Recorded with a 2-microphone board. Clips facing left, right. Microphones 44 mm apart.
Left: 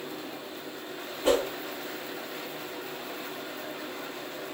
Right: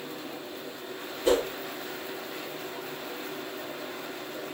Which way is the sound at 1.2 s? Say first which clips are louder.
Even; 45° left (ahead or behind).